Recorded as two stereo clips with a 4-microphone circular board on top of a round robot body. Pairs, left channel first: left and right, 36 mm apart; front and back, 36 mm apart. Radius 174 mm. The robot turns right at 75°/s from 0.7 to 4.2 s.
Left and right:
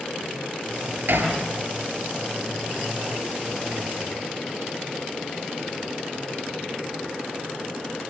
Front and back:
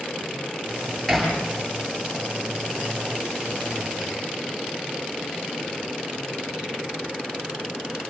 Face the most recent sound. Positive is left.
turn(degrees=145)